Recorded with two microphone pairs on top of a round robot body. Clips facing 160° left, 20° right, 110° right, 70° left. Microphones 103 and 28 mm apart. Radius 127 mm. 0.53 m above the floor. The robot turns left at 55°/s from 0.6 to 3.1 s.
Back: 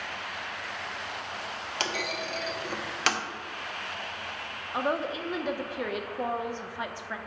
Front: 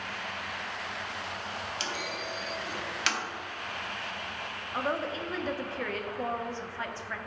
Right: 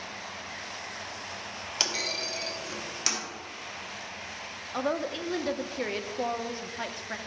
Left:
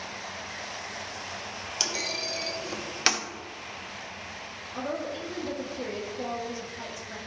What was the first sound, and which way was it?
A clunk, 175° right.